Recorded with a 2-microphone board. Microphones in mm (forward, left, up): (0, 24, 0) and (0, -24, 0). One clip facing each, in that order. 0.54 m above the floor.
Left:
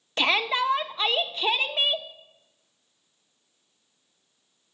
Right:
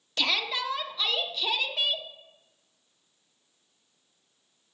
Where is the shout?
30° left (ahead or behind), 0.6 m.